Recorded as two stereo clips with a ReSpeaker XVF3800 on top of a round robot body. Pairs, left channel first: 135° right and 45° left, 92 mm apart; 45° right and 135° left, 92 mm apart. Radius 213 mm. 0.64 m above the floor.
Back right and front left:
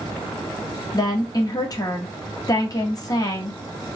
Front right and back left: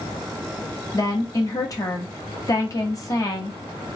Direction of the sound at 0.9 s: 90° right.